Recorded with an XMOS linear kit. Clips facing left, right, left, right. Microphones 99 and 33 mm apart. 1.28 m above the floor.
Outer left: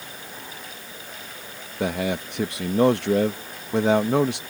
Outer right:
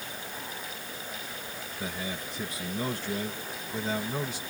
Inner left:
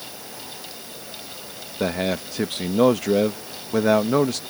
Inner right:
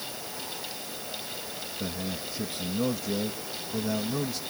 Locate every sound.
1.8 s a man speaking: 70° left (ahead or behind)